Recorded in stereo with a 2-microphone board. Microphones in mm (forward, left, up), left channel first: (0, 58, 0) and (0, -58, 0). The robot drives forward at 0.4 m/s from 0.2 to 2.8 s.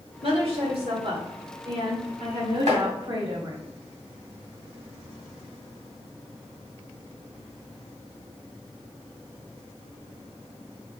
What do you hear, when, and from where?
0.2 s a woman speaking: 60° right (ahead or behind), 1.8 m; by 3.6 s 50° right (ahead or behind), 2 m
2.7 s chopping: 75° right (ahead or behind), 2.5 m; by 2.8 s 80° right, 2.5 m